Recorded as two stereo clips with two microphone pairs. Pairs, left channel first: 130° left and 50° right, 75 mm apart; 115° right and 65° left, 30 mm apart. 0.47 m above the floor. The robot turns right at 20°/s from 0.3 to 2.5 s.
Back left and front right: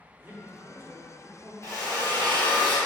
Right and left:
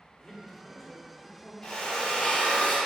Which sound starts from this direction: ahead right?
A man speaking, at 0.2 s.